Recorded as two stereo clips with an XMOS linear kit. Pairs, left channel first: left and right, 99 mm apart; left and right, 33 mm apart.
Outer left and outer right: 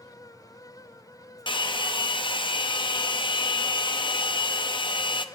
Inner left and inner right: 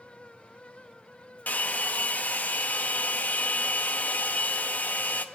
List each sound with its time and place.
1.5 s a hair dryer: 55° left (ahead or behind), 0.7 m